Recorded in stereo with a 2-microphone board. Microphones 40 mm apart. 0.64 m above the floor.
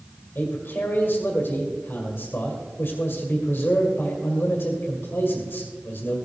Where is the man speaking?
55° left (ahead or behind), 2 m.